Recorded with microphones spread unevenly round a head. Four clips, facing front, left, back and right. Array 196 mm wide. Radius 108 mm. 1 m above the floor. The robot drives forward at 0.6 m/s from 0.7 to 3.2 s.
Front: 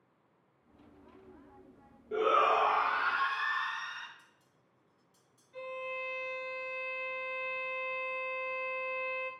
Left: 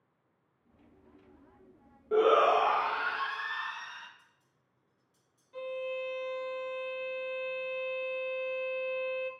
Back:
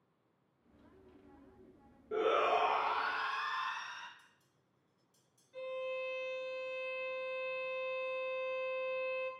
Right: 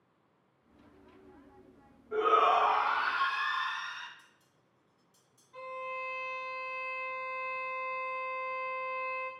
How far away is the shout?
About 0.5 m.